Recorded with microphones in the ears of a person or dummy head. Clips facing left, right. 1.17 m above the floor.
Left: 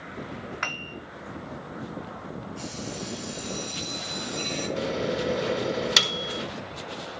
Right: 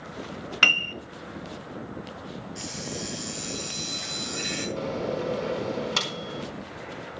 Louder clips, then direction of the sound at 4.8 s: Left 1 dB; 25° left (ahead or behind).